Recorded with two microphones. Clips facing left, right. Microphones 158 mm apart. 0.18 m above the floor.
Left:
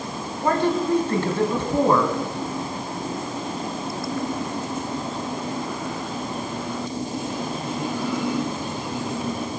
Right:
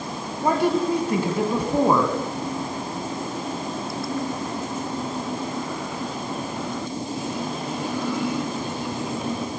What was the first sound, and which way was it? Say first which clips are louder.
A woman speaking: right 1 dB; 10° right (ahead or behind).